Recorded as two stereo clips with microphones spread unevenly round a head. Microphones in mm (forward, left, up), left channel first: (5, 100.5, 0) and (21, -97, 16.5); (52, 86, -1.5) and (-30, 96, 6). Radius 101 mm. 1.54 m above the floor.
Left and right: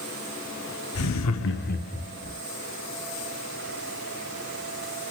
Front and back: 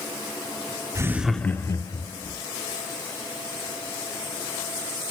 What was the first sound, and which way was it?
Laughter, 120° left.